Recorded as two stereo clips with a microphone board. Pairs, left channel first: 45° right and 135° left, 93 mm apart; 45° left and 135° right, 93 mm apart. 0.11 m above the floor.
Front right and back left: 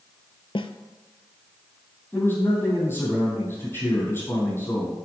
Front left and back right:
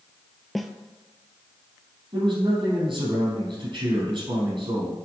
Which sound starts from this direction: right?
A man speaking, at 2.1 s.